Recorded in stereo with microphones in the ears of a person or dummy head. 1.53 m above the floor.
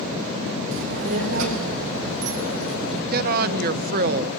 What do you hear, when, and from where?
0.7 s a child speaking: 75° right (ahead or behind), 3 m
3.1 s a woman speaking: 50° right (ahead or behind), 0.8 m